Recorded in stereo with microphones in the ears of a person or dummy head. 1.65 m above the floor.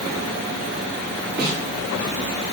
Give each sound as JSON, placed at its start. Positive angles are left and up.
{"t": 1.4, "sound": "a snare drum", "side_deg": -55, "distance_m": 3.0}